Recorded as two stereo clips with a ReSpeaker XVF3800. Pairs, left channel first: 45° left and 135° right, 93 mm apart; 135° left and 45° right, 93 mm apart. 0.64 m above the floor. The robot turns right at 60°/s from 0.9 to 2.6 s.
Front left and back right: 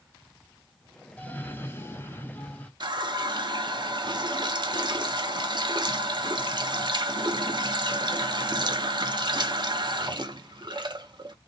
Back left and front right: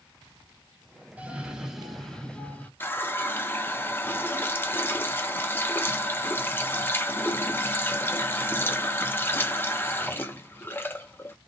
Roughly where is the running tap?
Behind.